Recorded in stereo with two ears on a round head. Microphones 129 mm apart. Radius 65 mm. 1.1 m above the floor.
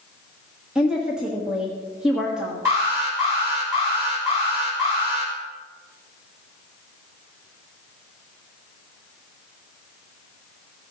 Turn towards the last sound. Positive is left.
turn(degrees=-20)  # may be behind; listen again after turning